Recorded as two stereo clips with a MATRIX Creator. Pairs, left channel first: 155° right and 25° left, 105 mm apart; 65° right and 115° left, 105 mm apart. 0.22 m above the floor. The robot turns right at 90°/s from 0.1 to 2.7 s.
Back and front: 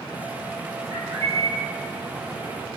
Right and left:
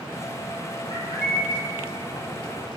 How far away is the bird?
About 1.6 m.